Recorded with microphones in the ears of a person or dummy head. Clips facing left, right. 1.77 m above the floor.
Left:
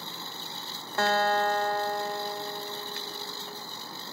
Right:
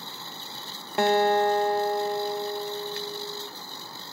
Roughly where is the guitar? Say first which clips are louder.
Right 5 dB; centre.